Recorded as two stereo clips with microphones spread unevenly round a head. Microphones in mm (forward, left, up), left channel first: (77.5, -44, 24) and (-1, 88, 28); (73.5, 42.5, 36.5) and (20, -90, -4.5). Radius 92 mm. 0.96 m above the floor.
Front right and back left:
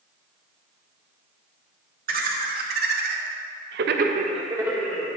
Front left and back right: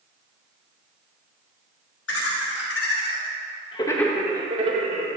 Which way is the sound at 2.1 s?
95° left.